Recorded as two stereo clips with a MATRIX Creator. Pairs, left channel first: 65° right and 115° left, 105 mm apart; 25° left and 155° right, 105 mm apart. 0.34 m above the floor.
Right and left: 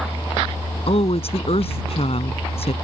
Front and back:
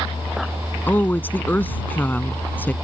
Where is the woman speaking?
50° right.